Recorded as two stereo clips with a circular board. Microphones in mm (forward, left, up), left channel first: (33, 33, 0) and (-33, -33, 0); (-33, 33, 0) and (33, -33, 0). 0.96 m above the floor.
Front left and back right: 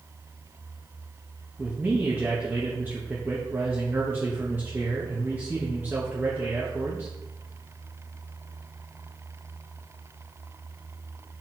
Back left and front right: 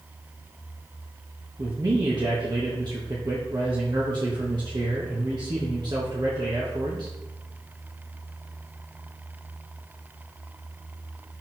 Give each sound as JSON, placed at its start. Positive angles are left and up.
{"t": 1.6, "sound": "a man speaking", "azimuth_deg": -70, "distance_m": 1.2}